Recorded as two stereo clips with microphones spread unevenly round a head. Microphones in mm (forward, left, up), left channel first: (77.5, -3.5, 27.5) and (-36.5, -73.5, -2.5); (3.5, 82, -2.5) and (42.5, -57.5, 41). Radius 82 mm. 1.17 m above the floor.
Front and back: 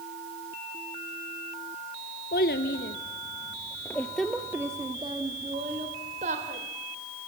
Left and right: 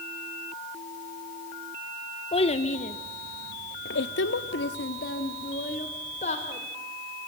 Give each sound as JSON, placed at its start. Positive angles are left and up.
{"t": 2.3, "sound": "a child speaking", "azimuth_deg": 50, "distance_m": 1.7}